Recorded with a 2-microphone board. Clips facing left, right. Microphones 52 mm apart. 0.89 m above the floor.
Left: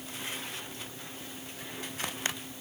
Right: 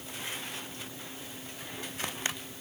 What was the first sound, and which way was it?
Only background noise.